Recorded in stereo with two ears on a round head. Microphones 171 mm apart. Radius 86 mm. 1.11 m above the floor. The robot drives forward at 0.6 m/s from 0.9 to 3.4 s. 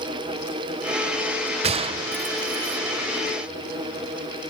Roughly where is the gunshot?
Right.